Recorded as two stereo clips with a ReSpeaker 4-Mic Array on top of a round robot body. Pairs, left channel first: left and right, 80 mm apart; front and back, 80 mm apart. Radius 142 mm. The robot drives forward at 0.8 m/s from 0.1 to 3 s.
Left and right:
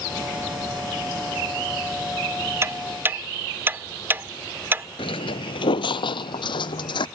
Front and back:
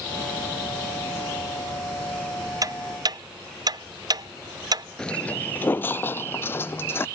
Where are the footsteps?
85° left; by 7.1 s 65° left.